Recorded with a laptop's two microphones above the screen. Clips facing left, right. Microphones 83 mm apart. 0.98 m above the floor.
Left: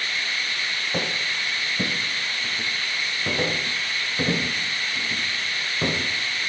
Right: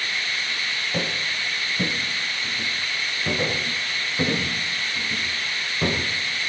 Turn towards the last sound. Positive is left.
turn(degrees=5)  # may be behind; listen again after turning